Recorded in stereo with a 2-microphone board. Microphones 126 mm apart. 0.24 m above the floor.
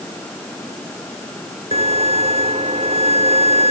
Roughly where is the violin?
Right.